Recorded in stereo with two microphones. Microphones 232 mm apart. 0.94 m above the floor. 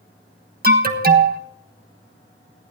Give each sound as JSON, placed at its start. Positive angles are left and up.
{"t": 0.6, "sound": "an alarm", "side_deg": -40, "distance_m": 1.3}